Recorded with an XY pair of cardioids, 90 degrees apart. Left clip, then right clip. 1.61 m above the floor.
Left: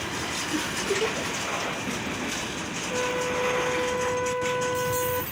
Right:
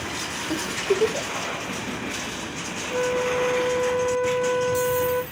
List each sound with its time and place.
0.5 s a giggle: 60° right, 1.2 m
2.9 s a flute: 5° right, 0.7 m